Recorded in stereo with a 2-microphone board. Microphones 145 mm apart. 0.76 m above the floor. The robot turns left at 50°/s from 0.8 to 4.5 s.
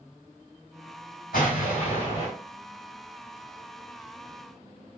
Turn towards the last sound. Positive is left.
turn(degrees=-85)